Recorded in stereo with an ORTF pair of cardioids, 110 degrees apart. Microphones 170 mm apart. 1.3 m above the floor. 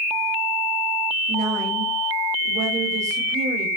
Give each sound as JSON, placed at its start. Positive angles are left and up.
{"t": 1.3, "sound": "a woman speaking", "azimuth_deg": -45, "distance_m": 8.0}